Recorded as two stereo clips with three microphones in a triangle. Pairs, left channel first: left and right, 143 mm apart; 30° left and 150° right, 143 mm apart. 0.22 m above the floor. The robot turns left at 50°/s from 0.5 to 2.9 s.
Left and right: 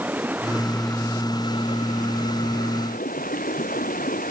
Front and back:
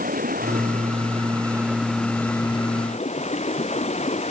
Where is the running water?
170° right; by 4.3 s 70° left.